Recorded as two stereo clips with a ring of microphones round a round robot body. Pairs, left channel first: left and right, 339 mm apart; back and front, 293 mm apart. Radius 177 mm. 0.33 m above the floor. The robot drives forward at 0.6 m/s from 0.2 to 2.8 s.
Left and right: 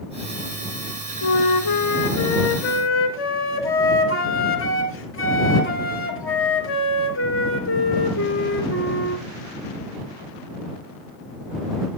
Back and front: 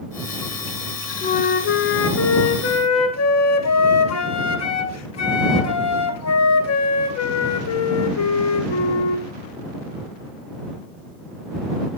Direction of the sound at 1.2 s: 115° left.